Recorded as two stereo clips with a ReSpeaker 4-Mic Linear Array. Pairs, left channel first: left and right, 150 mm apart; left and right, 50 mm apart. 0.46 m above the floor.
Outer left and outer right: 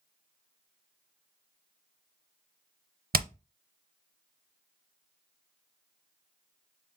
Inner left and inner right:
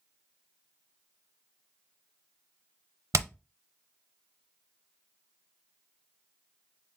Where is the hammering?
80° right, 0.5 m.